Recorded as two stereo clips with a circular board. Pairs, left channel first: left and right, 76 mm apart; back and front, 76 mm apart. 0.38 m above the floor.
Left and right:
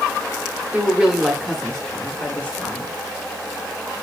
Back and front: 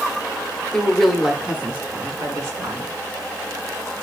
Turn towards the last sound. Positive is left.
turn(degrees=35)